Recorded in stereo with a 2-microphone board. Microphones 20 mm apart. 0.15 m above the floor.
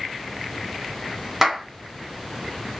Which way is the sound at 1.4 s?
10° right (ahead or behind).